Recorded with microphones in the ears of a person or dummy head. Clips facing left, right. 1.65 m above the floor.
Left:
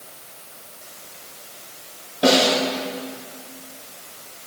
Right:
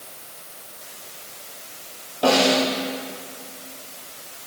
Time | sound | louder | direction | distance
2.2 | a snare drum | left 1 dB | 25° left (ahead or behind) | 4.5 m